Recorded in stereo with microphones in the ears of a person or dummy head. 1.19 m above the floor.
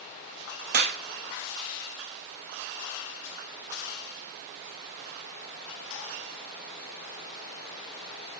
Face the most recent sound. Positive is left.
turn(degrees=-55)  # may be behind; listen again after turning